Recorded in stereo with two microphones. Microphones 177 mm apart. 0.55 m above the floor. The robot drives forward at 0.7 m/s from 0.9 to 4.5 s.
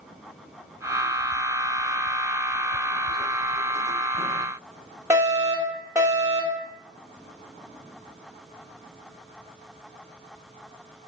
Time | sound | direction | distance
5.1 | a fire alarm | 15° right (ahead or behind) | 2.5 m